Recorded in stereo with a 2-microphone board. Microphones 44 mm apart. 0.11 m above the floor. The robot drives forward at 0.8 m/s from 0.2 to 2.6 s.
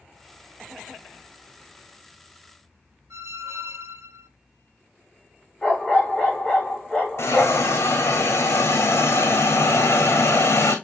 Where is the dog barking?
20° left (ahead or behind), 5 m.